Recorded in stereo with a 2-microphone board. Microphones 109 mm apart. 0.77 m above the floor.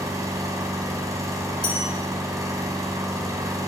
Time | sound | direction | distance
0.0 | an engine running | 30° right (ahead or behind) | 3.5 m
1.6 | a bell | 75° right (ahead or behind) | 3.5 m